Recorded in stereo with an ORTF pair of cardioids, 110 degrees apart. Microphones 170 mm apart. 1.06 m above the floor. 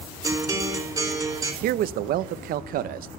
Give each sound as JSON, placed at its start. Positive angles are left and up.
{"t": 0.2, "sound": "a guitar", "azimuth_deg": -20, "distance_m": 3.5}
{"t": 1.6, "sound": "a man speaking", "azimuth_deg": -65, "distance_m": 0.6}